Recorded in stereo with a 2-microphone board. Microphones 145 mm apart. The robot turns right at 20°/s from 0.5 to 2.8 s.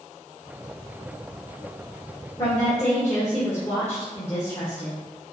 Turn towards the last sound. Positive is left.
turn(degrees=20)  # may be behind; listen again after turning